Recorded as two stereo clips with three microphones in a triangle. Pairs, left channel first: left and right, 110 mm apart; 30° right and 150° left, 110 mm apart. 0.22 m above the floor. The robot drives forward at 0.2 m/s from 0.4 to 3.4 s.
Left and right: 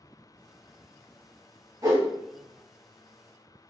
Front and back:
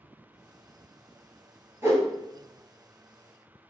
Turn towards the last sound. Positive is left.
turn(degrees=-150)